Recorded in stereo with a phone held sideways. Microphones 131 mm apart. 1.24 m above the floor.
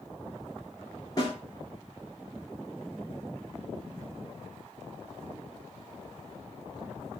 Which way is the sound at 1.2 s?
30° left (ahead or behind).